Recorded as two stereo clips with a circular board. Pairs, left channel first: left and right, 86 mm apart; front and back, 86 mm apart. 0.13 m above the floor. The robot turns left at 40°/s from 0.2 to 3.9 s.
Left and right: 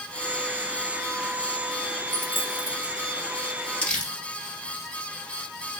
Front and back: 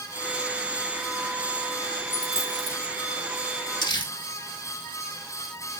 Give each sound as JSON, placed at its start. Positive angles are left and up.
{"t": 2.1, "sound": "a dropped coin", "azimuth_deg": 160, "distance_m": 1.8}
{"t": 3.8, "sound": "crumpling", "azimuth_deg": 15, "distance_m": 2.0}